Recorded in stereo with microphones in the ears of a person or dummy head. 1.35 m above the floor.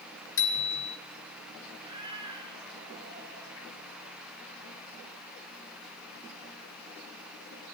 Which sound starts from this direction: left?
A bicycle bell, at 0.4 s.